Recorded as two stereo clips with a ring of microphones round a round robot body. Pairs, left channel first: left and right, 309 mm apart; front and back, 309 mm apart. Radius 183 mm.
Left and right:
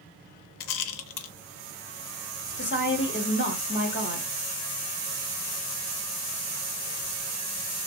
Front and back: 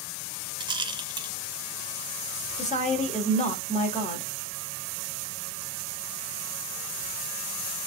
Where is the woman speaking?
60° left, 1.4 m.